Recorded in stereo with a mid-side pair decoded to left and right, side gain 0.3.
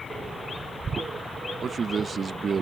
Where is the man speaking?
60° right.